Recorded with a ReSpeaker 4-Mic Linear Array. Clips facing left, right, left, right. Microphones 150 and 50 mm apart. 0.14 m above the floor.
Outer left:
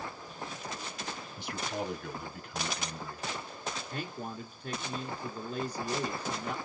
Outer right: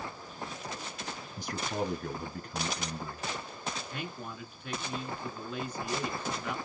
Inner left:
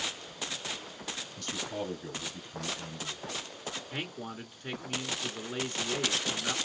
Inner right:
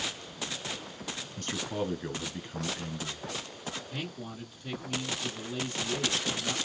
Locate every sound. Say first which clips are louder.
1.4 s a man speaking: outer right 3 dB, inner right 4 dB; 40° right (ahead or behind), 1.4 m
3.9 s a man speaking: outer left 2 dB, inner left 1 dB; 40° left (ahead or behind), 1.7 m